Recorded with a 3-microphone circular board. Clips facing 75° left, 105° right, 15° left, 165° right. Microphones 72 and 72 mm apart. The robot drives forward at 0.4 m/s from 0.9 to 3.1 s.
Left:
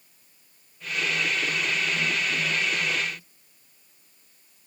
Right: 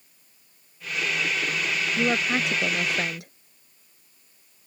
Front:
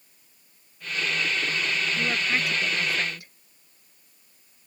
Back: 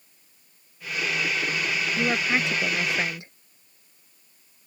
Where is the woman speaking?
95° right; by 3.3 s 100° right.